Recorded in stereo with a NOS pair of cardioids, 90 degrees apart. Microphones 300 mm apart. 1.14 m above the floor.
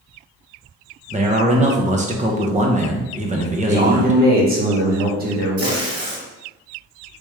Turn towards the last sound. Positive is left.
turn(degrees=-55)